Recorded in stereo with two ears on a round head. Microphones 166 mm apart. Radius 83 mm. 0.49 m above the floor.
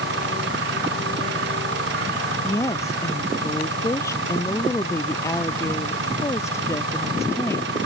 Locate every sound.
0.0 s an engine running: 65° right (ahead or behind)
2.4 s a woman speaking: 15° left (ahead or behind)